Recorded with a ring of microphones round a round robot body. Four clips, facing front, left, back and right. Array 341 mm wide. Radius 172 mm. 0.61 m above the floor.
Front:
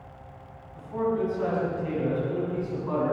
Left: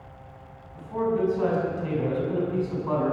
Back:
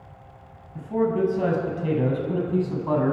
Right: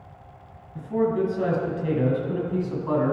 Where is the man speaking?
145° right, 5.5 m; by 3.1 s 160° right, 6 m.